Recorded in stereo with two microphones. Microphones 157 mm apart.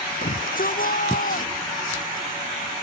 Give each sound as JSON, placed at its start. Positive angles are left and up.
{"t": 0.2, "sound": "a shout", "side_deg": 65}